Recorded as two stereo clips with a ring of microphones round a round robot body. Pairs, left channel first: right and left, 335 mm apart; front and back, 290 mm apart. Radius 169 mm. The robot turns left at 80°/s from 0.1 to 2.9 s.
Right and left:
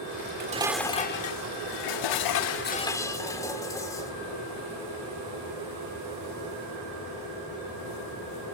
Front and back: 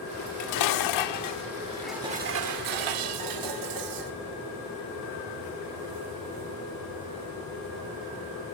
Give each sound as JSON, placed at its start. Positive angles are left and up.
{"t": 0.2, "sound": "dishes clattering", "azimuth_deg": 45, "distance_m": 1.1}